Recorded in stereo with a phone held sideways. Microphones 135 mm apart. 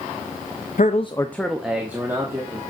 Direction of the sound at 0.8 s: 65° left (ahead or behind).